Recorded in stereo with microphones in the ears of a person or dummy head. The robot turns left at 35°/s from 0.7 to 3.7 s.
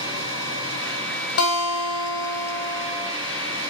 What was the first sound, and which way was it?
A guitar, 95° left.